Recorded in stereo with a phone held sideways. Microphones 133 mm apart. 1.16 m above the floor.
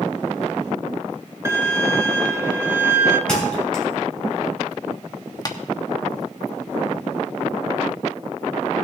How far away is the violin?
About 0.7 m.